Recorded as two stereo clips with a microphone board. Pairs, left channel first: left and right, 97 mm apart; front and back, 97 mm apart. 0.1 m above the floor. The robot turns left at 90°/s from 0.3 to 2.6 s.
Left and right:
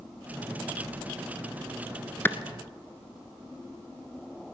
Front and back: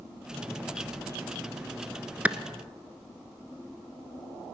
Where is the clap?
125° left, 1.1 m; by 2.4 s 115° left, 1.1 m.